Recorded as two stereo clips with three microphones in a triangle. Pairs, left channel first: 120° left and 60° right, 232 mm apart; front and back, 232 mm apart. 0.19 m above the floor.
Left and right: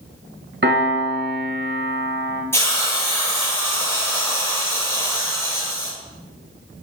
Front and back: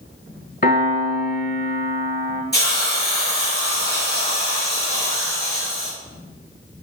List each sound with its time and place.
0.6 s a piano: 35° right, 1.2 m
2.5 s a hiss: 40° left, 3.5 m